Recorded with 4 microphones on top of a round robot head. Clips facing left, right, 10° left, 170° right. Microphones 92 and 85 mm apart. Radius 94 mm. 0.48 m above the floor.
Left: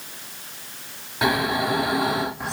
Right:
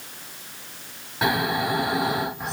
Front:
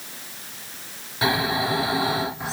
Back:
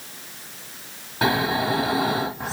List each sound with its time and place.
1.2 s snoring: straight behind, 1.7 m